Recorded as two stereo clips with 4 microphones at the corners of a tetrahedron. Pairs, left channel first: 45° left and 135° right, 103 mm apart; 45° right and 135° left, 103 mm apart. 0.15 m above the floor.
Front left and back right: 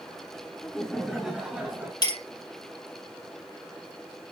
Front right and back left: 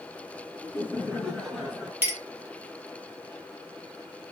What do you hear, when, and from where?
0.6 s laughter: 25° right, 1.8 m; by 1.9 s 160° right, 1.7 m
2.0 s a clink: 70° left, 1.3 m